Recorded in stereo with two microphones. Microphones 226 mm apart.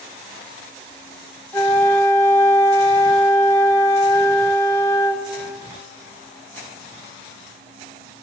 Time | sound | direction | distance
1.5 | a flute | 15° left (ahead or behind) | 0.8 m